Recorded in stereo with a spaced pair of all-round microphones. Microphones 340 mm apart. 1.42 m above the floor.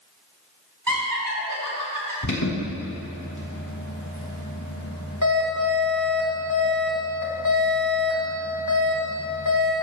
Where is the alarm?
60° left (ahead or behind), 3 m.